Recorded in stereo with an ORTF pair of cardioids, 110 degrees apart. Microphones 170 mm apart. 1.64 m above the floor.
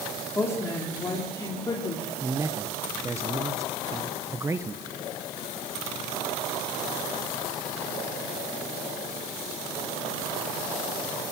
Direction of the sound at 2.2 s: 15° right.